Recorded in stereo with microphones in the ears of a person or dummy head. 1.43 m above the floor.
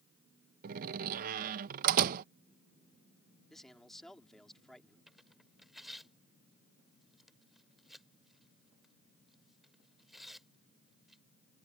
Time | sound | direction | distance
0.6 | a door slam | 40° right (ahead or behind) | ?
3.5 | a man speaking | 5° left (ahead or behind) | ?
5.1 | tearing paper | 5° left (ahead or behind) | ?